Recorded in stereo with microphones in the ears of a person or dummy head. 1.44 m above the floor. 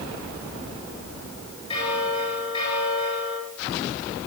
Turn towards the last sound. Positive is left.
turn(degrees=35)  # may be behind; listen again after turning